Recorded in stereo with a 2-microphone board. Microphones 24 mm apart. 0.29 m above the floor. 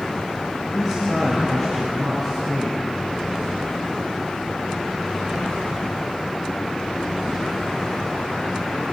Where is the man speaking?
15° left (ahead or behind), 5 m; by 2.8 s 25° left (ahead or behind), 5 m.